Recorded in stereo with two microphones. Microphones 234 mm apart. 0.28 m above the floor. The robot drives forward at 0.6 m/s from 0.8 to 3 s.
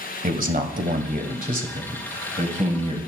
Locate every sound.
0.2 s a man speaking: 35° right (ahead or behind), 1.6 m; by 3.0 s 30° right (ahead or behind), 2 m